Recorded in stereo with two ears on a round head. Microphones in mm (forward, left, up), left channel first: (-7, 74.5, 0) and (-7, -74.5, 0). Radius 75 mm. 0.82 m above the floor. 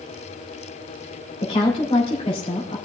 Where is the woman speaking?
40° left (ahead or behind), 3.5 m.